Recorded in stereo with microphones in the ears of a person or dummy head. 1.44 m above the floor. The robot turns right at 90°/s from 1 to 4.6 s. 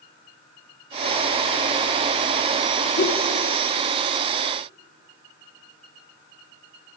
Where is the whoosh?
45° left (ahead or behind), 2 m; by 3.2 s 65° left (ahead or behind), 2 m.